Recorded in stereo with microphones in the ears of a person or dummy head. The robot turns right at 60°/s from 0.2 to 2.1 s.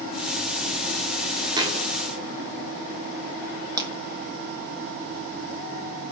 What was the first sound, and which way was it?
A thud, 20° right (ahead or behind).